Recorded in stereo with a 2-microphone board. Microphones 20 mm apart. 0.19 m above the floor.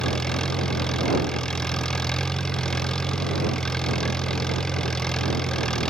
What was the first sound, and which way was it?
An engine running, 40° left (ahead or behind).